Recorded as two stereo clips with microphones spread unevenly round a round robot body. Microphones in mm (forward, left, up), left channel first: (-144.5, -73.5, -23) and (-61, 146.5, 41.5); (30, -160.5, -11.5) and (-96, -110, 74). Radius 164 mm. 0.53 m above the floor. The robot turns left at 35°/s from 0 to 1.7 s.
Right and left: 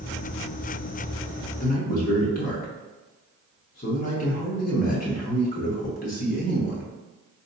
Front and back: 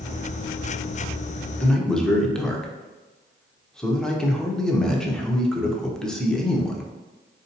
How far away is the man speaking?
About 1.0 m.